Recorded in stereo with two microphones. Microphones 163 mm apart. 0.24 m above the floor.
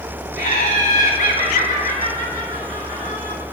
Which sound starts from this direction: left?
Laughter, at 0.4 s.